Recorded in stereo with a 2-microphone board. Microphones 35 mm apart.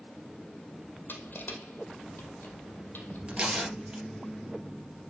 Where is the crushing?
75° left (ahead or behind), 2 m.